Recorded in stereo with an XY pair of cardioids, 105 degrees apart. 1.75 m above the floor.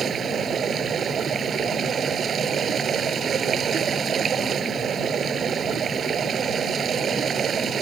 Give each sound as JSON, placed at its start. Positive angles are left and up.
{"t": 0.0, "sound": "running water", "azimuth_deg": -50}